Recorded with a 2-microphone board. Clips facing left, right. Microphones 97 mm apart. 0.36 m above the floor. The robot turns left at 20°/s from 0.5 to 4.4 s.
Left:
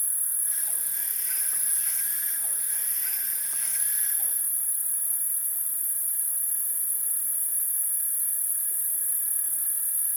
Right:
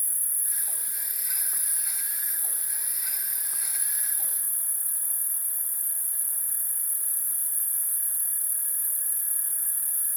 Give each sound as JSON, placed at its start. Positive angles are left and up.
{"t": 0.0, "sound": "an insect", "azimuth_deg": 35, "distance_m": 1.4}